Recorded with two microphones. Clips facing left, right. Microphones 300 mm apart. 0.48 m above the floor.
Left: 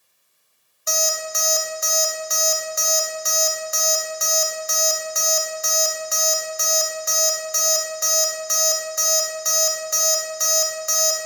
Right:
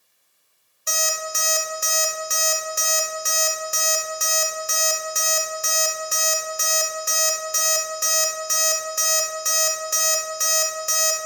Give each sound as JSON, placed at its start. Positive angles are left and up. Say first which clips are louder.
{"t": 0.9, "sound": "an alarm clock", "louder": "left 3 dB", "side_deg": -35, "distance_m": 0.9}